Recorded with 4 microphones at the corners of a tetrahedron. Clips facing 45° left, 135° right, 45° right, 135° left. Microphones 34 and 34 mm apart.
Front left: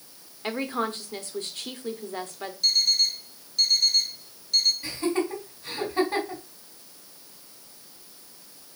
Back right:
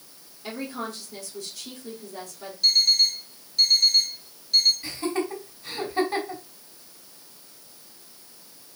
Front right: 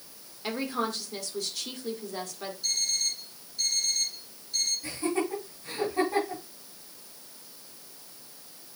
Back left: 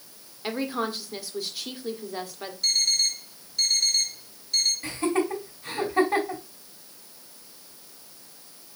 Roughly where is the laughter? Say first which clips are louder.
Front left 1 dB, back left 4 dB; behind left.